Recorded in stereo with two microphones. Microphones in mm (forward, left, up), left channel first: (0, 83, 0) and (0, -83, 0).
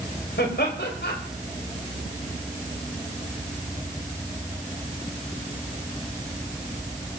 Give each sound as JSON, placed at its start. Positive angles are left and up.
{"t": 0.4, "sound": "laughter", "side_deg": 80, "distance_m": 3.5}